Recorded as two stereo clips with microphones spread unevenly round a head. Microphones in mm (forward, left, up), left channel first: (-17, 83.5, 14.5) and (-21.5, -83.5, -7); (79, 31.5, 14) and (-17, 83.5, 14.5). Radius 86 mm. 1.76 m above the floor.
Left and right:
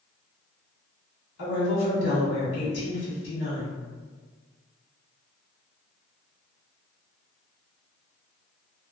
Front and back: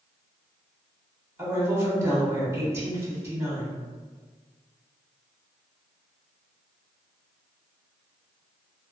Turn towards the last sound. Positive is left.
turn(degrees=85)